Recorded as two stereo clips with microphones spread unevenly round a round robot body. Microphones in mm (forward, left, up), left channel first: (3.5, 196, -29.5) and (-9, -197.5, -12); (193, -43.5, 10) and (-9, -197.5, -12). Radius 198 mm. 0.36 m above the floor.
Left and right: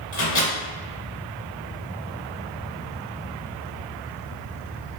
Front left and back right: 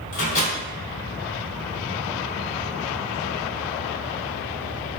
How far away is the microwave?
About 1.4 m.